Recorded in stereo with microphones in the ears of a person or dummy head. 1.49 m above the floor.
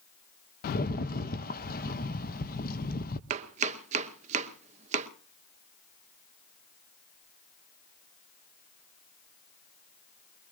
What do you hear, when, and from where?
0.6 s a rattle: 55° left (ahead or behind), 0.6 m
3.3 s chopping: 45° right (ahead or behind), 1.0 m